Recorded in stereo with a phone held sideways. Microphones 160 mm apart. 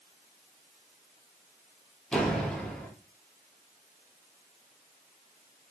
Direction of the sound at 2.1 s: 5° left (ahead or behind).